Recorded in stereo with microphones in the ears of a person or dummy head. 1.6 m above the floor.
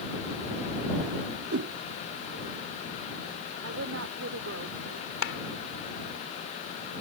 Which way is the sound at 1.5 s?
80° right.